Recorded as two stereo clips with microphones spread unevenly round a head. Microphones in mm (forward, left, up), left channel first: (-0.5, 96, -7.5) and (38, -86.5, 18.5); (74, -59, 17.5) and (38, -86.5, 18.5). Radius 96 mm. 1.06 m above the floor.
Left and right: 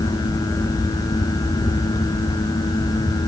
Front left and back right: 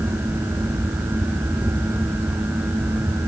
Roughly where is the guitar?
No guitar in this recording.